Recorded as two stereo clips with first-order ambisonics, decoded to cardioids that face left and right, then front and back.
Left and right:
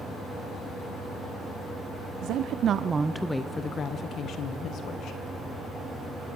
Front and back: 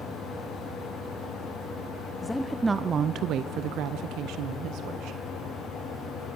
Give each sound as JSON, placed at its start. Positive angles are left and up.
{"t": 2.2, "sound": "a woman speaking", "azimuth_deg": -80, "distance_m": 0.7}